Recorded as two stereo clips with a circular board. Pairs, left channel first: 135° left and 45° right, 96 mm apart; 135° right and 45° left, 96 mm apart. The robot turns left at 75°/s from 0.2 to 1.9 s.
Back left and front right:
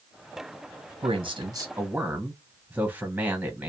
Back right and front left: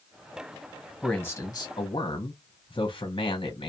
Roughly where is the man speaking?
Ahead right.